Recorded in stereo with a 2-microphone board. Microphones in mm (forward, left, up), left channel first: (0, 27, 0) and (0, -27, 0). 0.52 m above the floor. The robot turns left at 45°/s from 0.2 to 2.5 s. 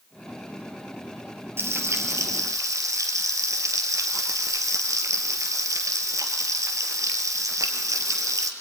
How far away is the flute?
No flute in this recording.